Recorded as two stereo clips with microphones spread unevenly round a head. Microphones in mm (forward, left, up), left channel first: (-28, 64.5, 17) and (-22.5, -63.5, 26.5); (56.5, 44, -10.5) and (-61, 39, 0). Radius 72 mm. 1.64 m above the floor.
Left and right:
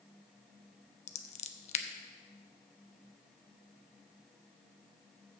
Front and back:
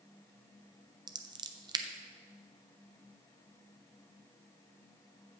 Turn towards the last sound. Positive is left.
turn(degrees=125)